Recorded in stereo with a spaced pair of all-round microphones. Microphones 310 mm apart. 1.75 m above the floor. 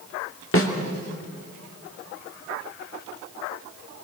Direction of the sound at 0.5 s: 45° left (ahead or behind).